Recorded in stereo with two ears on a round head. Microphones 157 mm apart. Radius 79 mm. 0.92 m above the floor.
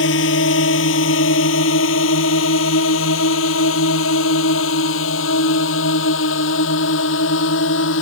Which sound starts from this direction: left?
A drone, at 0.0 s.